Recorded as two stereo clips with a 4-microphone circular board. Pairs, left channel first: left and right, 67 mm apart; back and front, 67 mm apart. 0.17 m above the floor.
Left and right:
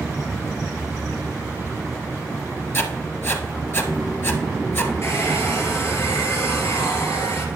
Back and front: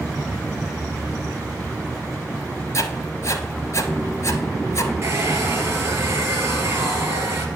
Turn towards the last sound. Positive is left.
turn(degrees=45)